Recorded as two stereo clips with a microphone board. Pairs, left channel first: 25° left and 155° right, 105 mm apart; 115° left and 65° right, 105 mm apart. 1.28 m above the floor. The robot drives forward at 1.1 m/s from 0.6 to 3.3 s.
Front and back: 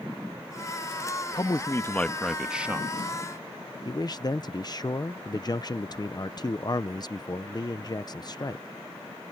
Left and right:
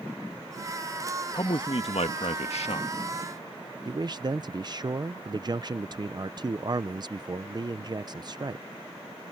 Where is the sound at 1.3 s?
65° left; by 2.9 s 130° left.